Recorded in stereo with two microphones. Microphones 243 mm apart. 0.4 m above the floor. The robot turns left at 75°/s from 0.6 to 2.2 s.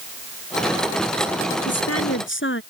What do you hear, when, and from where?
1.6 s a woman speaking: 95° left; by 2.6 s 55° left